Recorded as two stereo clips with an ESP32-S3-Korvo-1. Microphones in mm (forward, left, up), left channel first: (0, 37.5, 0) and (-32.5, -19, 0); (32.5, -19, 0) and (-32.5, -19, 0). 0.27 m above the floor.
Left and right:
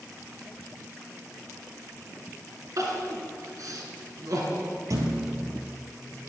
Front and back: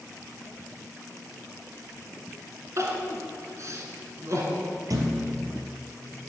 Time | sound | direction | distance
2.8 | crying | 145° right | 2.5 m
4.9 | a thud | 155° right | 2.5 m